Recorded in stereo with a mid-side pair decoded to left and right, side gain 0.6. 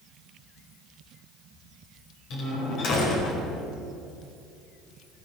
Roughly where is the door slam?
Ahead left.